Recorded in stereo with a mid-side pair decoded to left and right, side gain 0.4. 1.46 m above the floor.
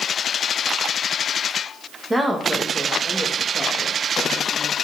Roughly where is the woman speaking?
Ahead.